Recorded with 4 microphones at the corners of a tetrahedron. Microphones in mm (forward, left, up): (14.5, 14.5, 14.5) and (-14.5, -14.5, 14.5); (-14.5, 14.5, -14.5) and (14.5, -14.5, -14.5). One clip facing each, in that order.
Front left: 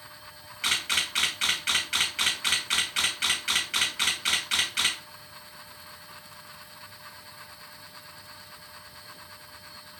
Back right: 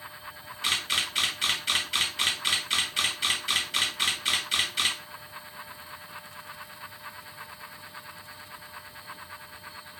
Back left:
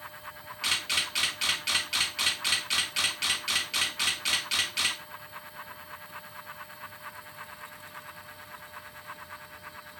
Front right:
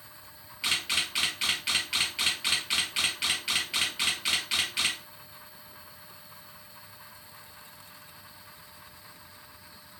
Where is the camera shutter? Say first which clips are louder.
Front left 1 dB, even; 35° left, 2 m.